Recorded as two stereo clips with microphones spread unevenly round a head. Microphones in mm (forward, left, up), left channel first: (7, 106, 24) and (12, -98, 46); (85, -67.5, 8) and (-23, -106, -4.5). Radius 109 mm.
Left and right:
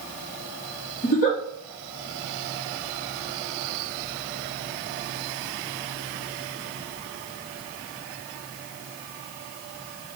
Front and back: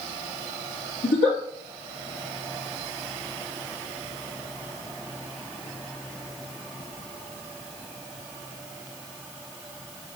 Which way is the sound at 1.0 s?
40° left.